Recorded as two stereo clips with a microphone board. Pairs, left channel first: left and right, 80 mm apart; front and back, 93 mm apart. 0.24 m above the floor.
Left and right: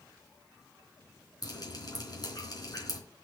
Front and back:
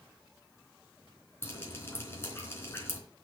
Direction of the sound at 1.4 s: 60° left.